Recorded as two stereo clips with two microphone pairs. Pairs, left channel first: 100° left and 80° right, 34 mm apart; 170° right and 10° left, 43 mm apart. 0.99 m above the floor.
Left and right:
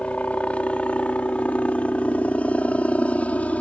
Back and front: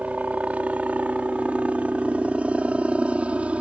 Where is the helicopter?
60° left; by 3.6 s 70° left.